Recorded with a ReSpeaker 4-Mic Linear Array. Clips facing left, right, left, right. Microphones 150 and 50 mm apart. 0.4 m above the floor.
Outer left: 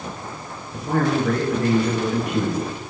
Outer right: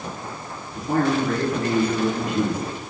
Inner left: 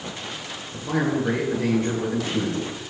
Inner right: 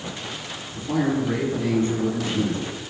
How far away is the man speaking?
About 6 m.